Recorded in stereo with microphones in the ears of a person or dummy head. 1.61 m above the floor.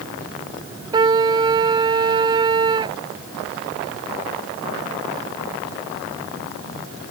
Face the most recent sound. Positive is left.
turn(degrees=-30)  # may be behind; listen again after turning